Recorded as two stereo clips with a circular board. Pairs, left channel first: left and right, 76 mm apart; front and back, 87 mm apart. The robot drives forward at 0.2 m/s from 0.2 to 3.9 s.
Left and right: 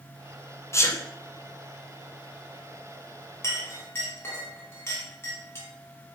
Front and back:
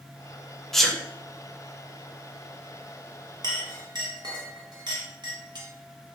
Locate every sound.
0.7 s a sneeze: 85° left, 0.5 m; by 1.0 s 95° left, 0.5 m
3.4 s a clink: 145° left, 0.9 m